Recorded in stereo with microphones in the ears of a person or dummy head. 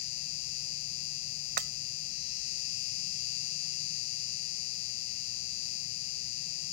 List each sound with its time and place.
0.0 s an insect: 85° left
1.6 s breaking glass: 45° right (ahead or behind)